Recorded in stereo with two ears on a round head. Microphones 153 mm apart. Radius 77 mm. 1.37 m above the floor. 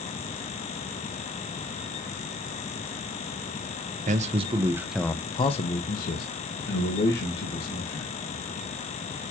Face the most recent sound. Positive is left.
turn(degrees=75)  # may be behind; listen again after turning